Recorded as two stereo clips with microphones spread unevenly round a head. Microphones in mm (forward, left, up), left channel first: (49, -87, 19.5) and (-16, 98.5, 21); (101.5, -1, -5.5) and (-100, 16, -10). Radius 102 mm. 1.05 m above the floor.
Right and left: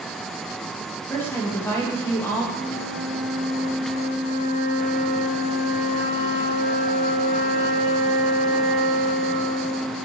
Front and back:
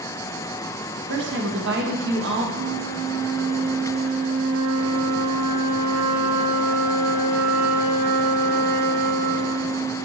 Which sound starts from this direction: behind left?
A flute, at 2.5 s.